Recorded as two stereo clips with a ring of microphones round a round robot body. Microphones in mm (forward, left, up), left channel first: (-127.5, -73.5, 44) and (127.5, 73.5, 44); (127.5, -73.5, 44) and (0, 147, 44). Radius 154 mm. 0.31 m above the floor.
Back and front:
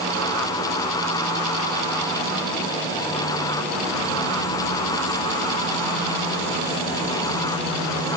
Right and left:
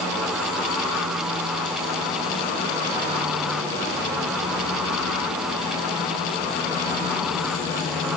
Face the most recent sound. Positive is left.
No sound to turn to.